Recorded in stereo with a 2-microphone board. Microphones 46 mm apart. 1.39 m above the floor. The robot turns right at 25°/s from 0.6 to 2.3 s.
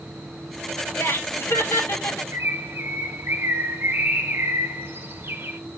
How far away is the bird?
About 1.0 m.